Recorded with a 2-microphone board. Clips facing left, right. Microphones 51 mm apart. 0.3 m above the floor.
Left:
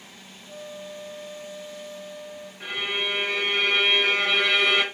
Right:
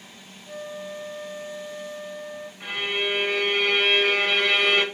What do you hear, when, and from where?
0.5 s a flute: 45° right (ahead or behind), 0.5 m
2.6 s a violin: 10° left (ahead or behind), 1.2 m